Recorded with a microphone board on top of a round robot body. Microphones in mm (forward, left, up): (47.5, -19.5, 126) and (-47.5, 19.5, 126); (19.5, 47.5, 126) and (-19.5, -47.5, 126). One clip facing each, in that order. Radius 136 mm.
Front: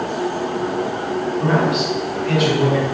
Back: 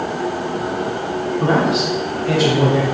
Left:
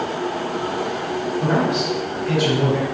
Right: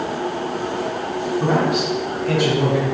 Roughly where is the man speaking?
Behind right.